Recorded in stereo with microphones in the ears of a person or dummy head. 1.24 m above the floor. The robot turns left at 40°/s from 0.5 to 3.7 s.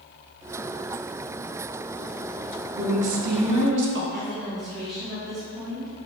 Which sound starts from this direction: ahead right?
A woman speaking, at 2.8 s.